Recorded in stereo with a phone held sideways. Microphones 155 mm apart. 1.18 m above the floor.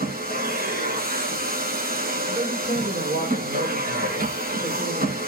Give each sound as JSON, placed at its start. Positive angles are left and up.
{"t": 0.0, "sound": "a machine running", "side_deg": -80, "distance_m": 7.0}
{"t": 2.3, "sound": "a man speaking", "side_deg": -85, "distance_m": 4.0}